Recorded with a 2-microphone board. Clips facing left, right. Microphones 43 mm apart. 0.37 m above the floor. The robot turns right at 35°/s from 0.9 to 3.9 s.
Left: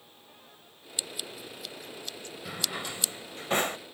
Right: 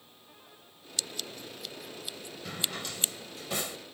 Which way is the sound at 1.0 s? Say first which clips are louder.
Even; 20° left (ahead or behind).